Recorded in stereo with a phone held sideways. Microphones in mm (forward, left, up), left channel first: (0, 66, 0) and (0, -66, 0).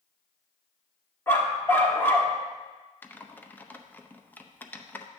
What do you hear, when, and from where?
1.3 s a dog barking: 20° left (ahead or behind), 1.3 m
3.0 s typing on a keyboard: 15° left (ahead or behind), 0.6 m